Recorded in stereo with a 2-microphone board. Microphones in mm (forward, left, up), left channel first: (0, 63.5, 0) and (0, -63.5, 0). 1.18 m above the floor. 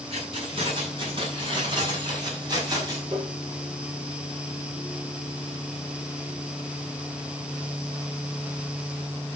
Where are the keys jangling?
50° right (ahead or behind), 8.5 m; by 3.0 s 30° right (ahead or behind), 5.5 m.